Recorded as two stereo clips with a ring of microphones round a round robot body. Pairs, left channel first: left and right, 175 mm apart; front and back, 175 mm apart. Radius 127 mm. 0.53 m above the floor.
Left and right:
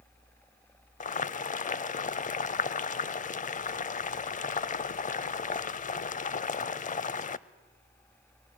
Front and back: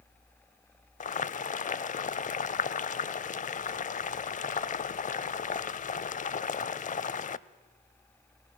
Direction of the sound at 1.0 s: 45° left.